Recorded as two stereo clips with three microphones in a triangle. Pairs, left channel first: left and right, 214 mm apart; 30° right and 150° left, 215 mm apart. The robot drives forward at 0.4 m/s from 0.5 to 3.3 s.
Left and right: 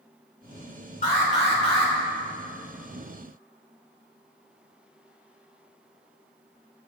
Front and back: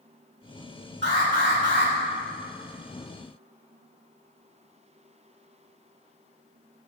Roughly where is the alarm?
Behind left.